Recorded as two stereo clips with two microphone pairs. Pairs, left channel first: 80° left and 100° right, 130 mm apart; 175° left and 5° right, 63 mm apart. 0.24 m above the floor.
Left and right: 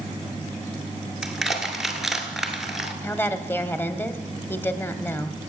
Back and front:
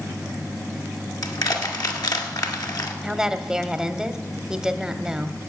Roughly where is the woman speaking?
Ahead left.